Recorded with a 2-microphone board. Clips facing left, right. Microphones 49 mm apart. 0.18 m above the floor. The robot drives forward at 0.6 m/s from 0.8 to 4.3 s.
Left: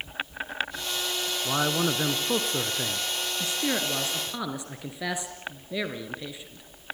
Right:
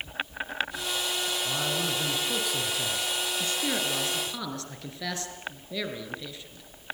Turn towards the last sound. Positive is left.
turn(degrees=15)  # may be behind; listen again after turning